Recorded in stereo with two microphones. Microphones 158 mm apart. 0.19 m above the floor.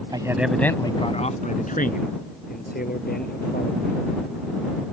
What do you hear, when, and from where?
0.1 s a man speaking: 30° right (ahead or behind); by 4.0 s 80° left